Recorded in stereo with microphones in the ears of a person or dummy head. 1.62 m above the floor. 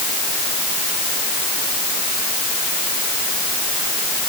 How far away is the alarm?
I don't hear an alarm.